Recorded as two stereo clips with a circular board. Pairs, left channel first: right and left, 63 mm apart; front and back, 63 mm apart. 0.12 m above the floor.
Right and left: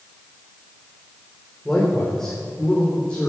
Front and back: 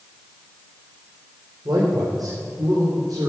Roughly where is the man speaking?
Behind.